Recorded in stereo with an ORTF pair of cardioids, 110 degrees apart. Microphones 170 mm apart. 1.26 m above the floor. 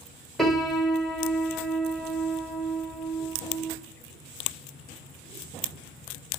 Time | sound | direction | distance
0.4 | a piano | straight ahead | 1.3 m